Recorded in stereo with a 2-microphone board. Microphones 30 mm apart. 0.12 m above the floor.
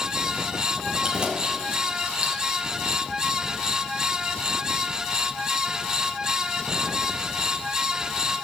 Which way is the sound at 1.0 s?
25° right (ahead or behind).